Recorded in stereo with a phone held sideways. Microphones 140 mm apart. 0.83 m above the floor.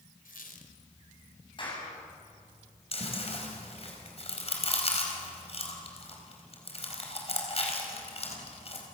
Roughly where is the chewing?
Left.